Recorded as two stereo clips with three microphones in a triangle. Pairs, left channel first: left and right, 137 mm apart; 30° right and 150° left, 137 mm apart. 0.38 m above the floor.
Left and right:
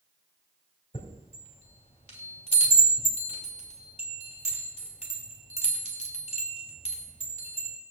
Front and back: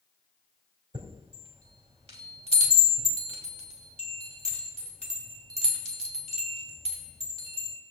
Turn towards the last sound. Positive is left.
turn(degrees=120)